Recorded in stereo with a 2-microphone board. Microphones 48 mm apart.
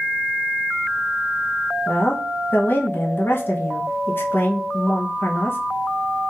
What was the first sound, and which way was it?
A woman speaking, 50° left (ahead or behind).